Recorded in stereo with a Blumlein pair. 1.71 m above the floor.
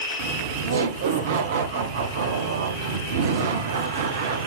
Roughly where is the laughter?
Ahead right.